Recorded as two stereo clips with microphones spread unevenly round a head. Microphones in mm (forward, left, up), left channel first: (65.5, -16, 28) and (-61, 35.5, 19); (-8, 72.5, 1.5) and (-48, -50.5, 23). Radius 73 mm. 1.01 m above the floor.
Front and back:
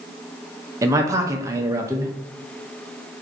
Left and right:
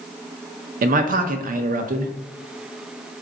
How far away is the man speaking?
About 0.6 m.